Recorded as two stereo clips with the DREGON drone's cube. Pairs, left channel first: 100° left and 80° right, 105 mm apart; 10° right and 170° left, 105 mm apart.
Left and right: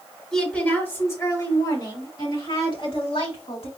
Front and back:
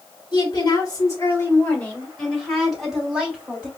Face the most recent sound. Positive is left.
turn(degrees=90)